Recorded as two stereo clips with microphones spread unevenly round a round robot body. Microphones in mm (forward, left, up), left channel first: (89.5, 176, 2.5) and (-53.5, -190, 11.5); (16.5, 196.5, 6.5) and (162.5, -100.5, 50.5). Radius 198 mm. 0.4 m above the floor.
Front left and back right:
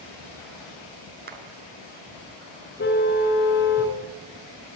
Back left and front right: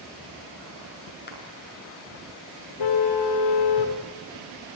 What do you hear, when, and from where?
1.3 s a clap: straight behind, 4.5 m
2.8 s a car horn: 135° left, 3 m